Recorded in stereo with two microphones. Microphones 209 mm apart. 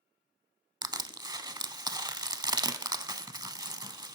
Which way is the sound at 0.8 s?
20° right (ahead or behind).